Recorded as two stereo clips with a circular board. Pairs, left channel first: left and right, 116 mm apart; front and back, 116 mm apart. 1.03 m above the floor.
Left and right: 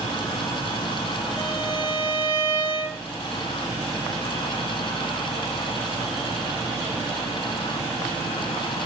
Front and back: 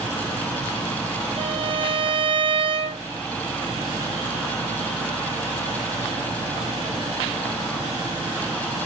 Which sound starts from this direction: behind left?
A violin, at 1.4 s.